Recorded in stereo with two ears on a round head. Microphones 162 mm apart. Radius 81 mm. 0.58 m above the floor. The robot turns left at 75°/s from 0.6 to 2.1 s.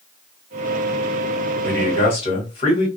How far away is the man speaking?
About 1.6 m.